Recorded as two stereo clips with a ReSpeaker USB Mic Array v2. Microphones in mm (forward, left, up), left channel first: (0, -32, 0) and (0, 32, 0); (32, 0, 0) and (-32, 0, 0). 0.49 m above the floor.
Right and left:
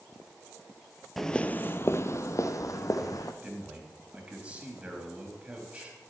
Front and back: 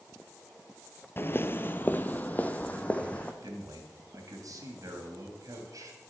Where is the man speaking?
160° left, 3 m.